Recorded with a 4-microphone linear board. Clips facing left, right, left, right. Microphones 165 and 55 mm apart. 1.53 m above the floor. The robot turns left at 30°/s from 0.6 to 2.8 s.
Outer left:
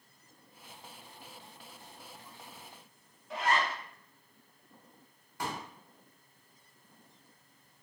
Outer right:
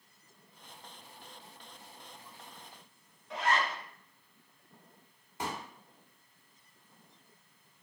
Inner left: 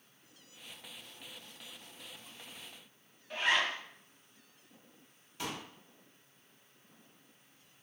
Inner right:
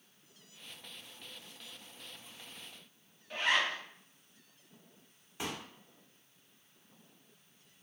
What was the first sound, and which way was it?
A zipper, 5° left (ahead or behind).